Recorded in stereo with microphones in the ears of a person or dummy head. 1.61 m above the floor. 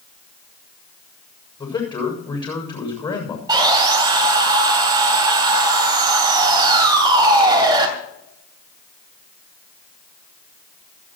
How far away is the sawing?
About 2.5 m.